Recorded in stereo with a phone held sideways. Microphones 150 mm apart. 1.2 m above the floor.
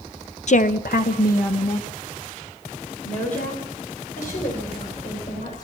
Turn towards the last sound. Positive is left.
turn(degrees=60)  # may be behind; listen again after turning